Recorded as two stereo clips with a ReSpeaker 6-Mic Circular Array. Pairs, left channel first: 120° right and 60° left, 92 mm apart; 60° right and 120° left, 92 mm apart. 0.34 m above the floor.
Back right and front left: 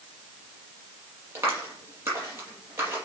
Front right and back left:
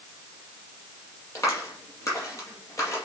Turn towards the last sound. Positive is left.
turn(degrees=0)